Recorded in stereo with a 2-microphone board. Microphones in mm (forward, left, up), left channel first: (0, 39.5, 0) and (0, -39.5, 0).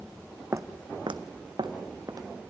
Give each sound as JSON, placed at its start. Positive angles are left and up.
{"t": 0.5, "sound": "footsteps", "side_deg": -40, "distance_m": 0.9}